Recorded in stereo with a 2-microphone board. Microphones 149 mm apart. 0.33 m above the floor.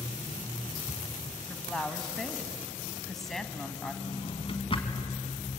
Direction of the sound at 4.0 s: 40° left (ahead or behind).